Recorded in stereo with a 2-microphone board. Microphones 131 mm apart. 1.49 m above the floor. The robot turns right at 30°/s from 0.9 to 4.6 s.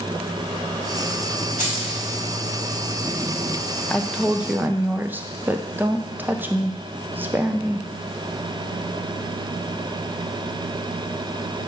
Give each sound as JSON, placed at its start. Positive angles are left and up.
{"t": 1.6, "sound": "keys jangling", "side_deg": 80, "distance_m": 4.0}
{"t": 3.9, "sound": "a woman speaking", "side_deg": 5, "distance_m": 0.5}